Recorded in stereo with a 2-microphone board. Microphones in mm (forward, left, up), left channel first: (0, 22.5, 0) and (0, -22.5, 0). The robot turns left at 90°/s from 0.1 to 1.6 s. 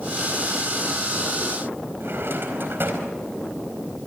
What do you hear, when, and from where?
2.0 s a drawer: 60° right (ahead or behind), 4 m